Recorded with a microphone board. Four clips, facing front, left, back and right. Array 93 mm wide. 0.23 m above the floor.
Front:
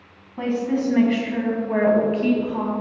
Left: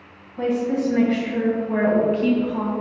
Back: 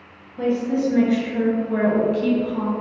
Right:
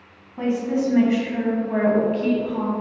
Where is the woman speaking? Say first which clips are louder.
Left 1 dB, back 2 dB; 25° right, 2.0 m; by 2.7 s 30° left, 1.6 m.